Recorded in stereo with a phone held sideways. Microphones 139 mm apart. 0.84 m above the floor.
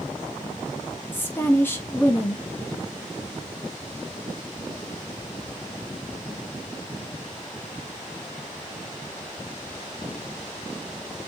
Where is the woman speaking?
15° left (ahead or behind), 0.9 m.